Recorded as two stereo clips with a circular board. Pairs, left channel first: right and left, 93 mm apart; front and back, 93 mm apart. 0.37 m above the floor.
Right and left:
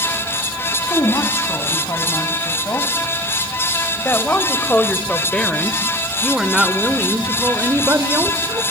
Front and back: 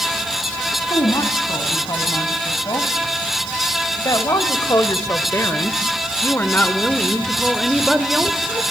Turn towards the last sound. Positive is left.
turn(degrees=110)